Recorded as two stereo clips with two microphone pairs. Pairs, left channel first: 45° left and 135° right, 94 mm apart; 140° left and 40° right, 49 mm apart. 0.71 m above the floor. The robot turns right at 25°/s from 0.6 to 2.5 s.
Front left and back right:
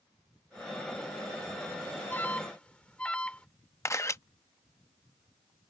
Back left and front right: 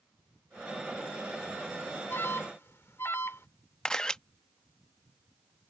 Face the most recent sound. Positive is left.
turn(degrees=80)